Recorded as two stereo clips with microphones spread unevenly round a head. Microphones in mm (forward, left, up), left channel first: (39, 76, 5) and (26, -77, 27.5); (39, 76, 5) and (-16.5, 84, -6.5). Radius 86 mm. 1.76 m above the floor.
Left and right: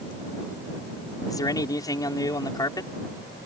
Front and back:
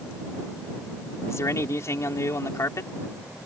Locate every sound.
1.3 s a man speaking: 15° left